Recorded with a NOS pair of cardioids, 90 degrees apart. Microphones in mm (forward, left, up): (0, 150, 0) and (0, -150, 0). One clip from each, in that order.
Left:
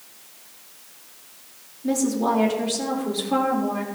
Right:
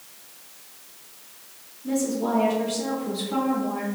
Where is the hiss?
I don't hear a hiss.